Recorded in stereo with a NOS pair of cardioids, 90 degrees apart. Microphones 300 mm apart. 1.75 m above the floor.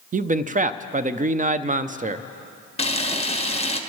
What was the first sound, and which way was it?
A man speaking, 30° right.